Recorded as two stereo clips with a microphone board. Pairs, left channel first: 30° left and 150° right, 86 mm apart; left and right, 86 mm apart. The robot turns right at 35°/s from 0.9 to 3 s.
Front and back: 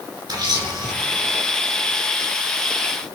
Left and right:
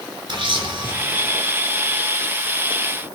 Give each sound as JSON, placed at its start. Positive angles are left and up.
{"t": 0.3, "sound": "a camera shutter", "azimuth_deg": -115, "distance_m": 3.5}